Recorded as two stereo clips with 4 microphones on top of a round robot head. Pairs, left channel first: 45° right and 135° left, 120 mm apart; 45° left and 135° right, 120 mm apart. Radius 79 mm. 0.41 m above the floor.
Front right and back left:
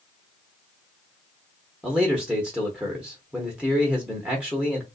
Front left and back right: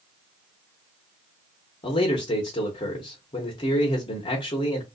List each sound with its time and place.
1.8 s a man speaking: 55° left, 0.9 m